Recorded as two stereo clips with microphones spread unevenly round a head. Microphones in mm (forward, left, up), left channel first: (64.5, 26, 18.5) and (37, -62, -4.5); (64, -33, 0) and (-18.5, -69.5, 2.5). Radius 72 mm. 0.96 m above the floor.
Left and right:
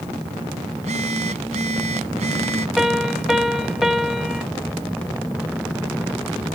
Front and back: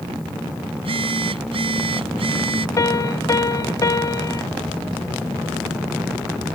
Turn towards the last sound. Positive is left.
turn(degrees=-25)